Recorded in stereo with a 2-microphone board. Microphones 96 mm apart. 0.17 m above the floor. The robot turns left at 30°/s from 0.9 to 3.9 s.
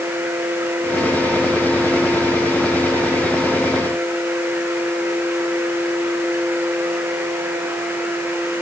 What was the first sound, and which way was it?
Only background noise.